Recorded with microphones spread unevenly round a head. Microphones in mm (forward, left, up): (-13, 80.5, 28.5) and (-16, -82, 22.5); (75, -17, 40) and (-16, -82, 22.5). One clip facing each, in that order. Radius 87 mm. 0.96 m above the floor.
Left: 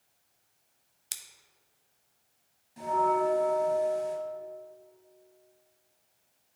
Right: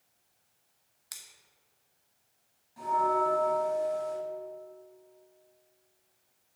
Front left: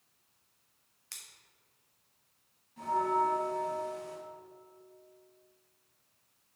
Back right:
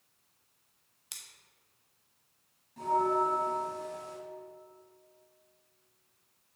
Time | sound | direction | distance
1.1 | scissors | 145° left | 0.7 m
2.8 | a bell | 150° left | 1.7 m